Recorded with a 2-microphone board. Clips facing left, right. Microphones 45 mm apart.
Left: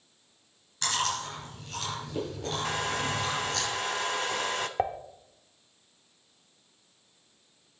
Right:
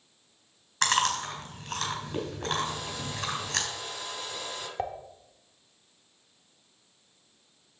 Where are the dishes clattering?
20° left (ahead or behind), 0.5 m.